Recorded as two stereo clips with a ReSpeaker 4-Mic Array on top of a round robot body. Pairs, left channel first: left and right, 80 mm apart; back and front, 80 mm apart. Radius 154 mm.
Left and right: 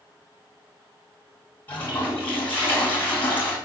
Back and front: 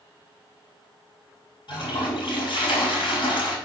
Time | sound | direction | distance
1.7 | a toilet flushing | 160° left | 4 m